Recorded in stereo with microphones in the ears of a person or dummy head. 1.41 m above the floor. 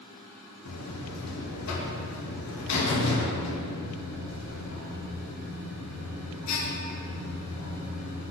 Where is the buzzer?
80° left, 1.1 m.